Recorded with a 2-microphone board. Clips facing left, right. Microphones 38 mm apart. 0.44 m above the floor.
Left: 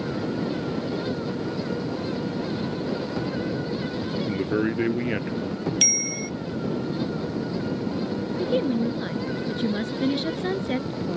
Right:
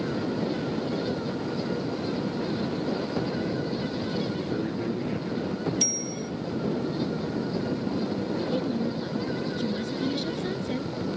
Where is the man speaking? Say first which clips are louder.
Left 5 dB; 75° left (ahead or behind).